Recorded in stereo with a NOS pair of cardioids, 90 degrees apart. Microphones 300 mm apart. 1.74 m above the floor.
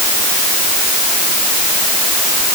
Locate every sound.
Only background noise.